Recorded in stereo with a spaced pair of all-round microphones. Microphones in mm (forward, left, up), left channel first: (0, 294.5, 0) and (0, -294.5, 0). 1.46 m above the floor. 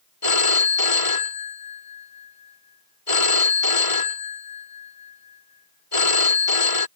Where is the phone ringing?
65° left (ahead or behind).